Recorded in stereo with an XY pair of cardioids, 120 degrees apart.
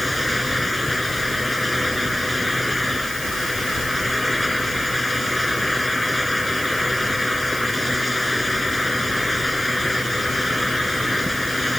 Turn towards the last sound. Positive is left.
turn(degrees=5)